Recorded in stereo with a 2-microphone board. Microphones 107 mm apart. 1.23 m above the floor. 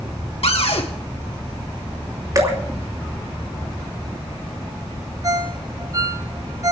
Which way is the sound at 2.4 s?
35° right (ahead or behind).